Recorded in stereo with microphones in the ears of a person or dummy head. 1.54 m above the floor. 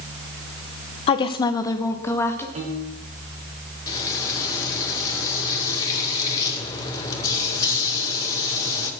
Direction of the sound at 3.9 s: 20° left (ahead or behind).